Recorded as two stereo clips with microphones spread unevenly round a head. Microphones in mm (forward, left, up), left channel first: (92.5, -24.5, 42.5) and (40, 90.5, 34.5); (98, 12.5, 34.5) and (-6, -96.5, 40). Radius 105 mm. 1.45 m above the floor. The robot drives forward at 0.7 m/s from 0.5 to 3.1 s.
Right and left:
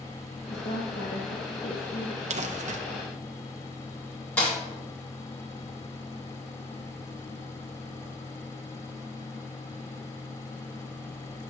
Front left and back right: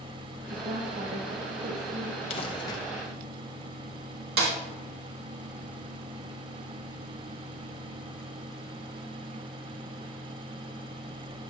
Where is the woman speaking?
75° right, 1.2 m; by 2.2 s 125° right, 1.5 m.